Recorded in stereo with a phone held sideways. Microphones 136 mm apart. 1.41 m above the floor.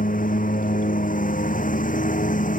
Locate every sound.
0.0 s a lawn mower: 85° left; by 2.6 s 75° left (ahead or behind)